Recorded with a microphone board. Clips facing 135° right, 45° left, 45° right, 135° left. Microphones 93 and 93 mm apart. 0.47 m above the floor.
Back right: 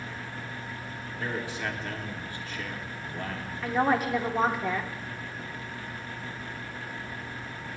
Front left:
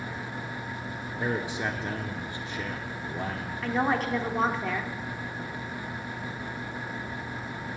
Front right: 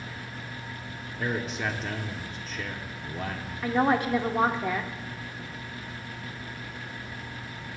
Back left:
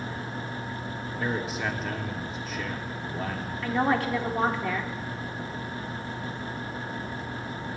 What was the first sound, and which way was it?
A man speaking, 50° left.